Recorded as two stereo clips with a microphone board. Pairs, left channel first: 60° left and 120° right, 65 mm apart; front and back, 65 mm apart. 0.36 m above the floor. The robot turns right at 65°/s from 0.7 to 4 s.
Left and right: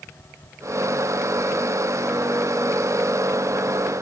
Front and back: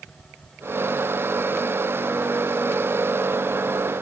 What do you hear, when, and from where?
Only background noise.